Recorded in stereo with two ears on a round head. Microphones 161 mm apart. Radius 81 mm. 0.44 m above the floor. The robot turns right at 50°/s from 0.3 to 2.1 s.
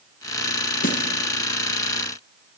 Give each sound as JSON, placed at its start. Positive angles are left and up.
{"t": 0.8, "sound": "a snare drum", "side_deg": 55, "distance_m": 3.0}